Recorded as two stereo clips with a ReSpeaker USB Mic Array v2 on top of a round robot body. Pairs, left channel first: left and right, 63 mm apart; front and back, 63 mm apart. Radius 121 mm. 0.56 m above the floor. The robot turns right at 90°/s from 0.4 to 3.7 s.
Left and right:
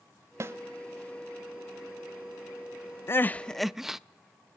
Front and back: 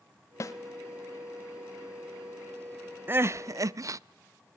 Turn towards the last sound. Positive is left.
turn(degrees=-175)